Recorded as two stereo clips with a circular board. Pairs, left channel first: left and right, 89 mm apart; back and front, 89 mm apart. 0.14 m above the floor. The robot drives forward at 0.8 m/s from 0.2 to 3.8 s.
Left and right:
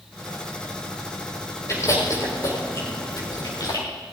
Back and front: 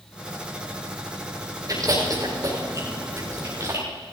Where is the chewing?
40° left, 5.5 m; by 3.9 s 55° left, 4.5 m.